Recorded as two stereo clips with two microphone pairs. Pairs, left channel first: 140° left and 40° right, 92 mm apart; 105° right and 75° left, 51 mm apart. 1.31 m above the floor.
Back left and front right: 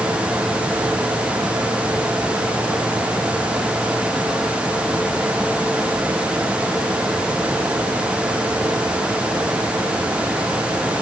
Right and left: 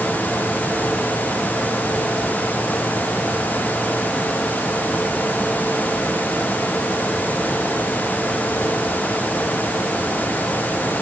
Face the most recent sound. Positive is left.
No sound to turn to.